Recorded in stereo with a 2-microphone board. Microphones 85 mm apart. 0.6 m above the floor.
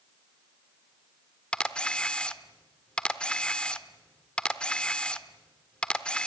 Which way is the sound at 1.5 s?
15° left (ahead or behind).